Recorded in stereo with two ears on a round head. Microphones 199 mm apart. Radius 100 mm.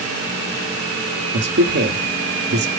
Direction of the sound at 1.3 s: 50° right (ahead or behind).